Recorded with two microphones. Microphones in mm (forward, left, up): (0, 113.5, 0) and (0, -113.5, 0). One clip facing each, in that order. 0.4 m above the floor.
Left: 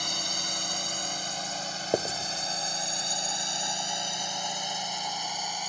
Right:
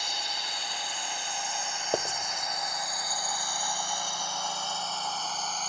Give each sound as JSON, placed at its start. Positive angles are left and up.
{"t": 0.0, "sound": "a drone", "side_deg": 50}
{"t": 1.9, "sound": "writing", "side_deg": 15}